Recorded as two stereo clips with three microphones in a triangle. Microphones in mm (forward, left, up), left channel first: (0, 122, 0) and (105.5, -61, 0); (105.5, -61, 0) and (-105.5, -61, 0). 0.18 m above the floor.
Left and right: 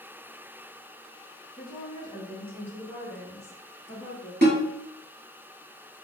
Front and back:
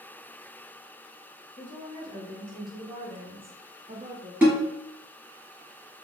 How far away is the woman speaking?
About 1.1 m.